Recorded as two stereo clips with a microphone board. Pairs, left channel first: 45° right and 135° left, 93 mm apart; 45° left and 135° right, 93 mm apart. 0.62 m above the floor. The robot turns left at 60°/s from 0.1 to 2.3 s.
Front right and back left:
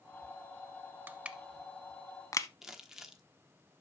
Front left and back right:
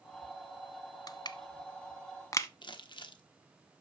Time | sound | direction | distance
1.1 | crushing | 75° left | 0.7 m
2.6 | crumpling | 50° left | 1.1 m